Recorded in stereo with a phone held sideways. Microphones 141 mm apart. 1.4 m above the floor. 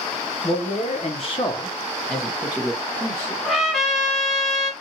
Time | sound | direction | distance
0.4 | a man speaking | 70° left (ahead or behind) | 1.3 m
3.4 | a trumpet | centre (ahead or behind) | 2 m